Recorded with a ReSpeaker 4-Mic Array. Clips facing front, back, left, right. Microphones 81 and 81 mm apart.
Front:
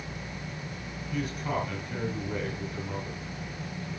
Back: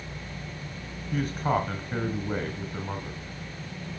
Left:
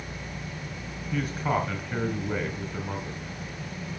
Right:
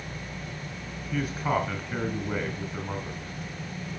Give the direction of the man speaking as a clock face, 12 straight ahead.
6 o'clock.